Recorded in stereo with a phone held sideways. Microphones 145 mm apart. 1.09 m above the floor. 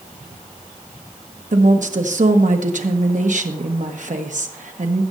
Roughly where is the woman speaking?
Right.